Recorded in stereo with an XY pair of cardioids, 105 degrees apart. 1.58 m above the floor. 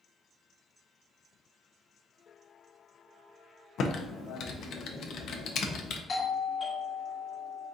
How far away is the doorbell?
About 1.2 m.